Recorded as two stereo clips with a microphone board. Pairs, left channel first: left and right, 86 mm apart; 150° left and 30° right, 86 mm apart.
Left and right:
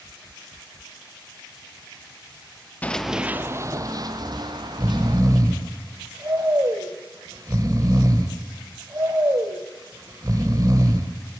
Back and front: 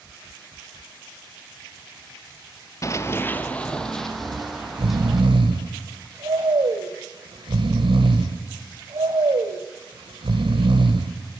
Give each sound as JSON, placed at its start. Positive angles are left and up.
{"t": 2.8, "sound": "running footsteps", "azimuth_deg": 150, "distance_m": 1.1}
{"t": 4.2, "sound": "snoring", "azimuth_deg": -45, "distance_m": 2.0}